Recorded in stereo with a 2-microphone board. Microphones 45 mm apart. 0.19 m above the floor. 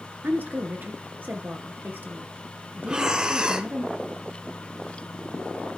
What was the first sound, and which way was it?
A woman speaking, 45° right (ahead or behind).